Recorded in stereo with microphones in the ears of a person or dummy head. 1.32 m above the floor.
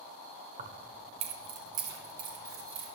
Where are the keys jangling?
45° right (ahead or behind), 0.7 m; by 2.9 s 20° right (ahead or behind), 3 m.